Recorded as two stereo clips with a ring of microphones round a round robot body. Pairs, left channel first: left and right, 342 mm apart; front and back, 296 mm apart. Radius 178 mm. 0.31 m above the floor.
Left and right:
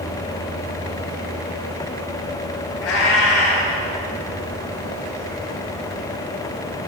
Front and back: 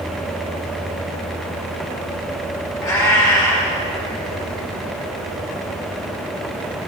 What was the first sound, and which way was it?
A cat meowing, 80° left.